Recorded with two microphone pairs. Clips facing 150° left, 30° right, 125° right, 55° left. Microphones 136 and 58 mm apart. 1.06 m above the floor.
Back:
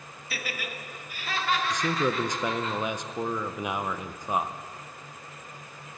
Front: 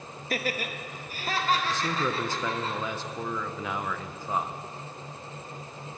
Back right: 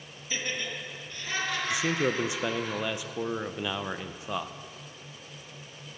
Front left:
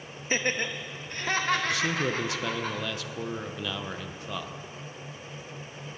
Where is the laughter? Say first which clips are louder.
Front 6 dB, front left 5 dB; 10° left, 1.1 m; by 2.7 s 25° left, 3.5 m.